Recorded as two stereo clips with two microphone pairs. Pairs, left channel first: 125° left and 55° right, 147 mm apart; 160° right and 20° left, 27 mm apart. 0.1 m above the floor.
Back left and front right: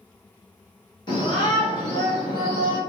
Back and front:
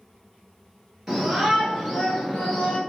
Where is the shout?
95° left, 1.3 m; by 2.8 s 170° left, 1.2 m.